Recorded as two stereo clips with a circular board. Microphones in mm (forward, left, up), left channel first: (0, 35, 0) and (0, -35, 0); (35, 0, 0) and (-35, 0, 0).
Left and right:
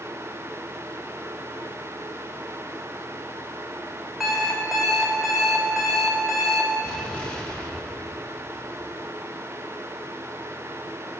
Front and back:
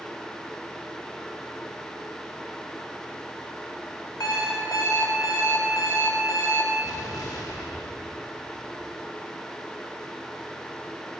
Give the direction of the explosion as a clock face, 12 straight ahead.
11 o'clock.